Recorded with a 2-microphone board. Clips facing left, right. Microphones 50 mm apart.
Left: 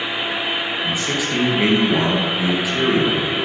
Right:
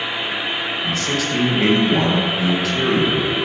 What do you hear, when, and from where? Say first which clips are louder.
0.8 s a man speaking: even; 15° left (ahead or behind), 3 m